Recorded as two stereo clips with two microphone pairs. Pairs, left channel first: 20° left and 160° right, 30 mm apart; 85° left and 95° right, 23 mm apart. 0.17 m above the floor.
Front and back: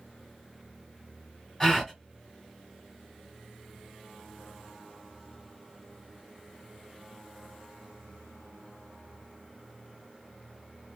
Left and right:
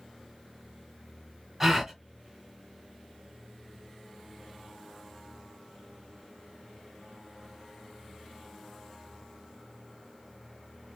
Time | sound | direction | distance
1.6 | a gasp | 55° right | 1.6 m